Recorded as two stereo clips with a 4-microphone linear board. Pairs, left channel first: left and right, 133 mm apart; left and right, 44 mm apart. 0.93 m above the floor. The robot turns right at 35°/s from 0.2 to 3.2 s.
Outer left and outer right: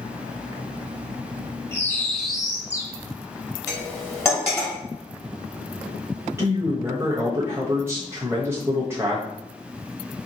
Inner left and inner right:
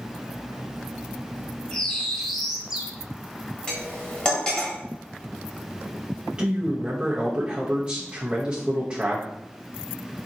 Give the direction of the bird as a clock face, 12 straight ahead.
7 o'clock.